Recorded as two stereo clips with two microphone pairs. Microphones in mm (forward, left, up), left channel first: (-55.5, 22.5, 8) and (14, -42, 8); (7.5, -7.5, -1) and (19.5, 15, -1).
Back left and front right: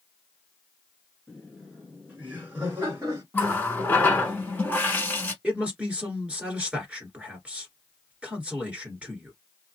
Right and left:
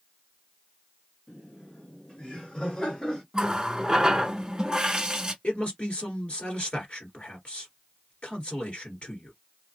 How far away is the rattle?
I don't hear a rattle.